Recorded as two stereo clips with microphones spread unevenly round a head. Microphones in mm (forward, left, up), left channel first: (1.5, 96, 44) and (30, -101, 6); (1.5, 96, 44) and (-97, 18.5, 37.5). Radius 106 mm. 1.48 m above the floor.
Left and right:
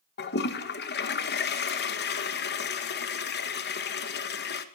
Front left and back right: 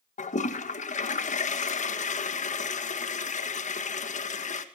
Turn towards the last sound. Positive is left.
turn(degrees=60)